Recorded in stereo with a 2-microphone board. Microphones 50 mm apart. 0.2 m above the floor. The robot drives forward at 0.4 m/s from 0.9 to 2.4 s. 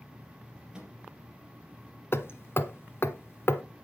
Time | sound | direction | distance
0.7 | a microwave | 15° right (ahead or behind) | 3.5 m
2.1 | hammering | 55° left (ahead or behind) | 1.2 m